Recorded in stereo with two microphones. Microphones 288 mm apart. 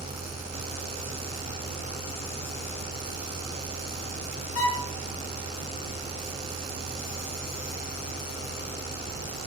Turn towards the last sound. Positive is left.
turn(degrees=55)  # may be behind; listen again after turning